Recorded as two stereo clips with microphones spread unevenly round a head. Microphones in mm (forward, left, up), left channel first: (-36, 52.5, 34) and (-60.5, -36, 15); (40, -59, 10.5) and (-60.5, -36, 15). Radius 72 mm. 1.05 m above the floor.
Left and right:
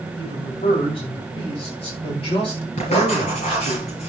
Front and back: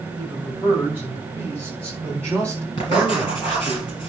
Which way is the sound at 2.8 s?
45° left.